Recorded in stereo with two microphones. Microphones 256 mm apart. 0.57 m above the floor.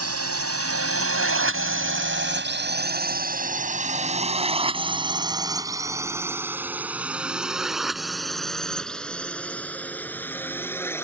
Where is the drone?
70° right (ahead or behind); by 11.0 s 10° left (ahead or behind).